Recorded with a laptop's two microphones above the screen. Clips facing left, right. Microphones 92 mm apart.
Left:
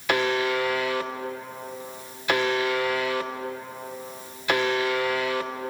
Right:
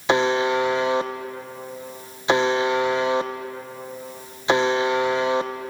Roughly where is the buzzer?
Right.